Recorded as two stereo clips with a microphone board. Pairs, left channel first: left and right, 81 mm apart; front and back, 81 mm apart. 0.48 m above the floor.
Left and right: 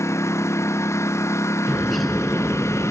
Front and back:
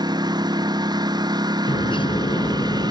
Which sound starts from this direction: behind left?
A lawn mower, at 0.0 s.